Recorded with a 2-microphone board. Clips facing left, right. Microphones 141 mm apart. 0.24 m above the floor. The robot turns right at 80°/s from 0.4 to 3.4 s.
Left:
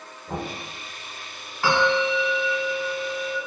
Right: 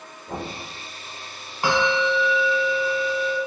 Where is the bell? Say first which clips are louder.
Even; 145° right, 0.8 m; by 3.4 s 5° right, 0.8 m.